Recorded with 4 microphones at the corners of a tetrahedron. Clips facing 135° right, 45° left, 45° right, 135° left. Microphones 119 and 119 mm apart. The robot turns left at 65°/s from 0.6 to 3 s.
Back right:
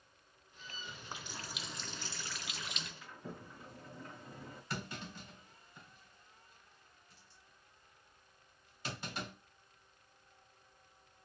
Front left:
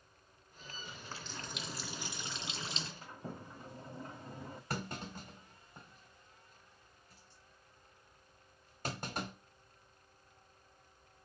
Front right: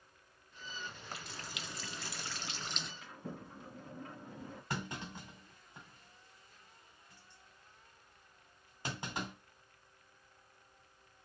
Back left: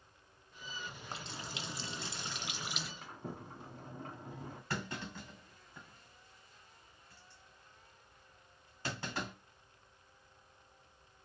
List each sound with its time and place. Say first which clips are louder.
0.9 s a running tap: even, back left 2 dB; 175° right, 0.6 m; by 2.9 s 50° left, 0.6 m
3.0 s a sliding door: front left 2 dB, back left 1 dB; 95° left, 1.9 m
4.7 s a clunk: front left 3 dB, back left 1 dB; 25° left, 2 m